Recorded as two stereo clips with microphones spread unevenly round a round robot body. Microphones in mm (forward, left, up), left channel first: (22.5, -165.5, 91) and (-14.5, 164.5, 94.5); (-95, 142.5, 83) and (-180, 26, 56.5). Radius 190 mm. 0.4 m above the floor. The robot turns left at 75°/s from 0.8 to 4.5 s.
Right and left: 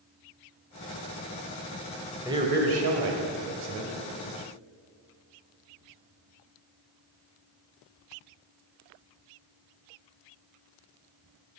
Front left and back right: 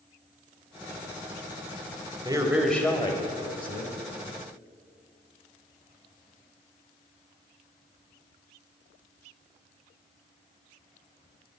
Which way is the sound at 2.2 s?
Straight behind.